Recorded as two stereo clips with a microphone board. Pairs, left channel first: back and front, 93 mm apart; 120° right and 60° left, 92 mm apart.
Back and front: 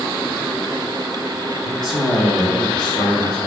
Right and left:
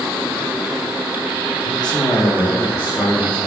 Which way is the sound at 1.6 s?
150° right.